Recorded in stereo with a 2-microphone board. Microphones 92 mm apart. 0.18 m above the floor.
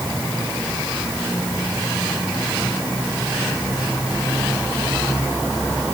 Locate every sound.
Only background noise.